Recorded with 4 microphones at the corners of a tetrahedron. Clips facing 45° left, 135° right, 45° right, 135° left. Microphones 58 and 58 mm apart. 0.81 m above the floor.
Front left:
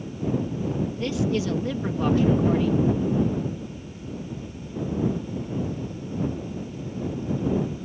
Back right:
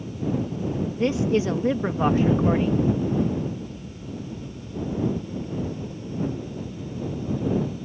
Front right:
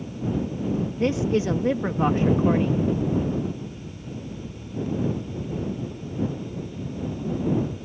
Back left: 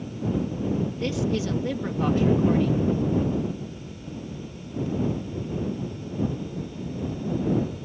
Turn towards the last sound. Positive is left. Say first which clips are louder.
# back right 5 dB, front right 4 dB
turn(degrees=-90)